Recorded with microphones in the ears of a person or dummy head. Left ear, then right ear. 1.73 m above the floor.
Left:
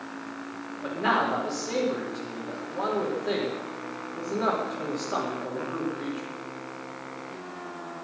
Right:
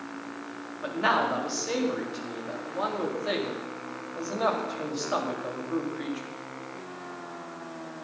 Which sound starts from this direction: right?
A man speaking, at 0.8 s.